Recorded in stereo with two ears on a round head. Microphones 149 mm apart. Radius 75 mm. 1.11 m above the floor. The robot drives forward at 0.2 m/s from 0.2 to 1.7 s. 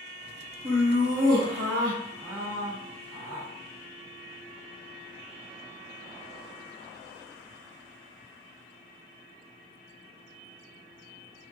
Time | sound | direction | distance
0.6 | laughter | 65° right (ahead or behind) | 1.5 m